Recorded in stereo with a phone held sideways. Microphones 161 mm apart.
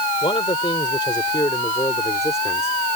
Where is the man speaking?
35° left (ahead or behind); by 2.8 s 15° left (ahead or behind).